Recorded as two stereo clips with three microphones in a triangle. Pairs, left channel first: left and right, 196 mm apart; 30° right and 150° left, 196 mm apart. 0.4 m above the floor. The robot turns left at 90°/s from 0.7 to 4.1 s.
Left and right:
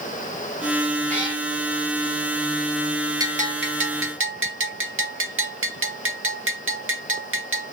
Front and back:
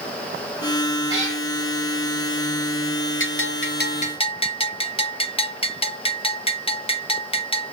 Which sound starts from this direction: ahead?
A bell, at 3.2 s.